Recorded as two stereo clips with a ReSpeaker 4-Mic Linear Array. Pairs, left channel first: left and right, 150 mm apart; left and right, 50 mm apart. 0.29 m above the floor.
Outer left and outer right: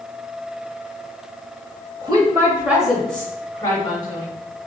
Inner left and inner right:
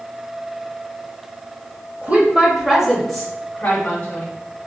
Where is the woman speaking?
30° right (ahead or behind), 0.9 m; by 4.3 s 35° left (ahead or behind), 1.2 m.